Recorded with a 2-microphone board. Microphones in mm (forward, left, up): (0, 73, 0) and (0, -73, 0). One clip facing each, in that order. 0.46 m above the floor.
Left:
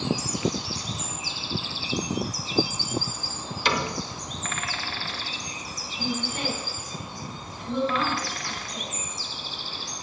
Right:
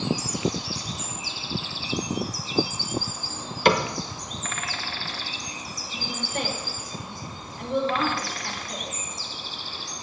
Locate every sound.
3.6 s a cupboard door: 55° right (ahead or behind), 0.9 m
5.9 s a woman speaking: 60° right (ahead or behind), 5.5 m